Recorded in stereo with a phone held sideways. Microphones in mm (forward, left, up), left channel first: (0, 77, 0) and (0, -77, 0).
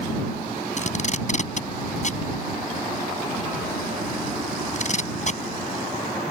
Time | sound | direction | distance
0.8 | tape being pulled | 50° left (ahead or behind) | ?